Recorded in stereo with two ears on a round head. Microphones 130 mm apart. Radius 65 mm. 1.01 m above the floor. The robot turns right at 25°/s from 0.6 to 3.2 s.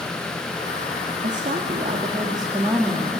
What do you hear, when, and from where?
1.2 s a woman speaking: 60° right, 2.5 m; by 3.2 s 10° right, 2.5 m